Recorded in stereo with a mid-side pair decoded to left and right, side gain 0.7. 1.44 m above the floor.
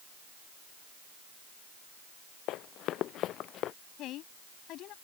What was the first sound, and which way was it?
Running footsteps, 55° left.